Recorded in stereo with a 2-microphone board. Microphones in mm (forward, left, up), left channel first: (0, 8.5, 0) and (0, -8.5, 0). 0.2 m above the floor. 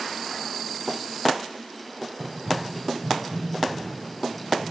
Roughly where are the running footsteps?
Centre.